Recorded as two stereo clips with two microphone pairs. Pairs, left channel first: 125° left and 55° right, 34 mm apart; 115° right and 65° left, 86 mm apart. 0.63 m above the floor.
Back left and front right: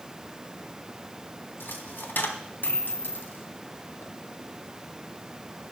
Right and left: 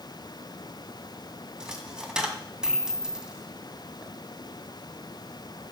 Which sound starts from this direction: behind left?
A dropped coin, at 1.6 s.